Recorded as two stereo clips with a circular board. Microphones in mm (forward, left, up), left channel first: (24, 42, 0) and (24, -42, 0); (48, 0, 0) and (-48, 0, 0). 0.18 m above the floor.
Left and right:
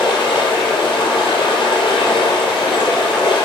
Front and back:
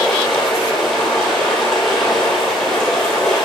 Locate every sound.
0.0 s running water: 85° left, 3 m